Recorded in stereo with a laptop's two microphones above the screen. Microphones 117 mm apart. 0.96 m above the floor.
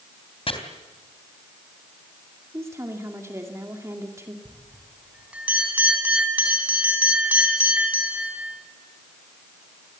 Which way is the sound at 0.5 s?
55° left (ahead or behind).